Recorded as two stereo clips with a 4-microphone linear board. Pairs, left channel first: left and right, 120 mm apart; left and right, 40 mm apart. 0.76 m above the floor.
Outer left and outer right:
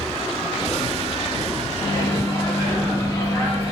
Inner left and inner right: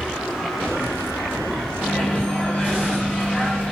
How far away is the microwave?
About 0.9 m.